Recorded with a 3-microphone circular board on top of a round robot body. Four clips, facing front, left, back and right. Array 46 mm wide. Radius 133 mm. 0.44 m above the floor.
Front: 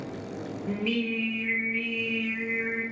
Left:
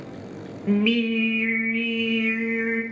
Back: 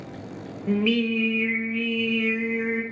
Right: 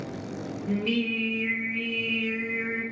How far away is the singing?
About 0.9 m.